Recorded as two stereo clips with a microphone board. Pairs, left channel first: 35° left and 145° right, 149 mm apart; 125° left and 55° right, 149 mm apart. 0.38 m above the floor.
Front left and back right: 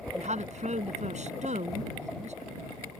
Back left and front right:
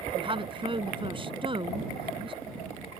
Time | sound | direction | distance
0.1 | a woman speaking | 110° right | ?